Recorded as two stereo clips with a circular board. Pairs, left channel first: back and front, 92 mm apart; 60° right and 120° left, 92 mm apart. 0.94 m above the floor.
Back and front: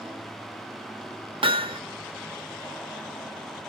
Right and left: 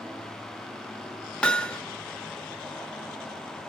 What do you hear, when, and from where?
1.4 s hammering: 20° left, 0.6 m